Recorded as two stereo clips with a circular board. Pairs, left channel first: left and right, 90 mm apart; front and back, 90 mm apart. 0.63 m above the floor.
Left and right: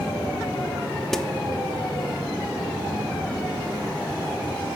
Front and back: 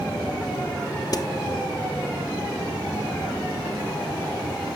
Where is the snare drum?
5° left, 0.6 m.